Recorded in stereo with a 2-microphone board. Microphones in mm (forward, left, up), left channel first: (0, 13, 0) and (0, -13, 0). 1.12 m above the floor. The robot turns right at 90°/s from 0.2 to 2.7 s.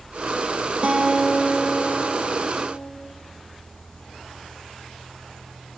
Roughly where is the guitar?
Ahead right.